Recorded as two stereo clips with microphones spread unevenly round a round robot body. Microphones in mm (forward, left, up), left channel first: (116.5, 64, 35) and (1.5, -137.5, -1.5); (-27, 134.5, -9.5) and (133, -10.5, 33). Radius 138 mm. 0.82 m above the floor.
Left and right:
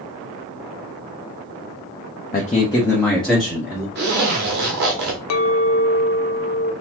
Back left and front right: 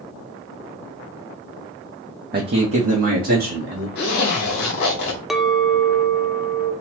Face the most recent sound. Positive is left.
turn(degrees=50)